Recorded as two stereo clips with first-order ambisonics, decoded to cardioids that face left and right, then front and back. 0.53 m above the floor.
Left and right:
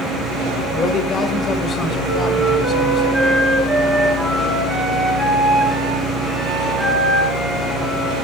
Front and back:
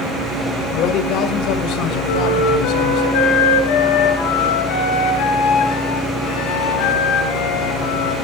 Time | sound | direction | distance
0.7 | a man speaking | 30° left | 1.8 m
2.1 | a flute | 5° left | 7 m